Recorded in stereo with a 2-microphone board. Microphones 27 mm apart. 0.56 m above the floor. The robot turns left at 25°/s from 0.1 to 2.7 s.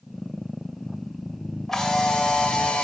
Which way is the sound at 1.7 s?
15° left (ahead or behind).